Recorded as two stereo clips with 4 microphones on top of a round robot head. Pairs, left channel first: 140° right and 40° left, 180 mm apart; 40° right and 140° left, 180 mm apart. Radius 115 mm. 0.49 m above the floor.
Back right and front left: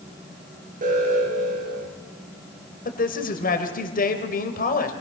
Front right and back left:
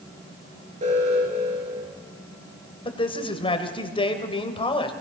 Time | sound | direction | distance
0.8 | an alarm | 85° left | 9.5 m
2.9 | a man speaking | 100° right | 3 m